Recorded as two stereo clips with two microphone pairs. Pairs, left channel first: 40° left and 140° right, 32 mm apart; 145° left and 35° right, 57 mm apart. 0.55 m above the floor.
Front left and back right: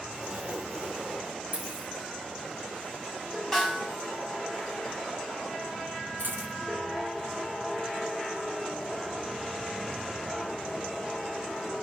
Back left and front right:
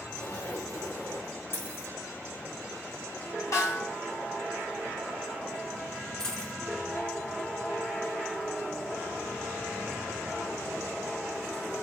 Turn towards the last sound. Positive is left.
turn(degrees=-140)